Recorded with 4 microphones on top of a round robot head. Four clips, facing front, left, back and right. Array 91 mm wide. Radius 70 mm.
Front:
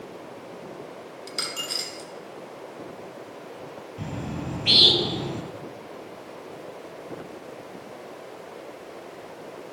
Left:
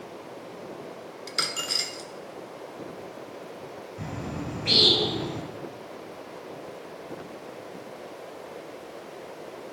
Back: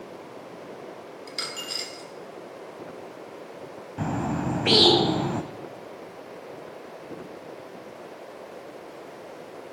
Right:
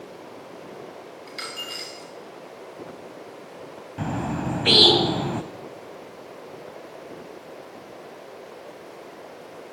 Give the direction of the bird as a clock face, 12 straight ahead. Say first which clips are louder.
Right 8 dB, back 7 dB; 4 o'clock.